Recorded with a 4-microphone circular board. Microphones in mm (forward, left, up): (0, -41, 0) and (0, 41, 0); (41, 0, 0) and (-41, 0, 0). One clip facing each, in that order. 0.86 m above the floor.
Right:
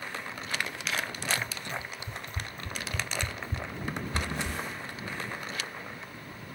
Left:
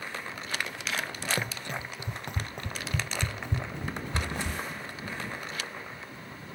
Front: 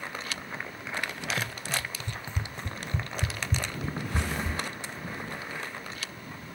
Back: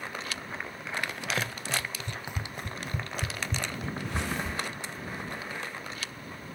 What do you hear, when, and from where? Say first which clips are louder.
1.4 s running footsteps: left 2 dB, back 1 dB; 120° left; by 4.6 s 80° left